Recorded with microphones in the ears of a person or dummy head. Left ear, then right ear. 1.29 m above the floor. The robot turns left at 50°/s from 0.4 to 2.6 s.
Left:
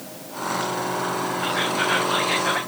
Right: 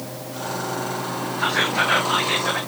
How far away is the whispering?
About 0.7 m.